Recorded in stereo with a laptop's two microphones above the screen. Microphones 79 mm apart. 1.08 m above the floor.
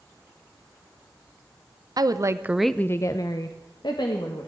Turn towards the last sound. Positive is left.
turn(degrees=70)  # may be behind; listen again after turning